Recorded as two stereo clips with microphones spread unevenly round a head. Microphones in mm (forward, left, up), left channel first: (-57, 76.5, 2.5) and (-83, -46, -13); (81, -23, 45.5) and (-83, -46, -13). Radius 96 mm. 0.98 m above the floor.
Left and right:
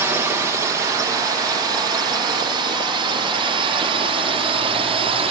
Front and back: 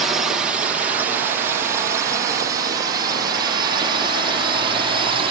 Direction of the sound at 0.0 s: 140° right.